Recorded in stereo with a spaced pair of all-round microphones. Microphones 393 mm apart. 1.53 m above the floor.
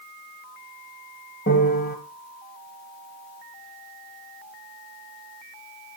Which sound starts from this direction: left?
A piano, at 1.5 s.